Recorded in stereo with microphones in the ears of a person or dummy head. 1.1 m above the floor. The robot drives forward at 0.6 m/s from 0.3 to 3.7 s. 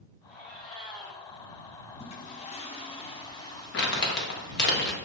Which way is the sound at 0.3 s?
5° left (ahead or behind).